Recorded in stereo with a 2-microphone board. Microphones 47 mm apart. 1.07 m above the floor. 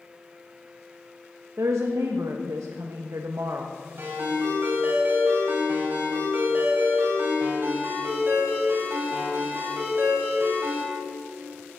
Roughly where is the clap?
No clap in this recording.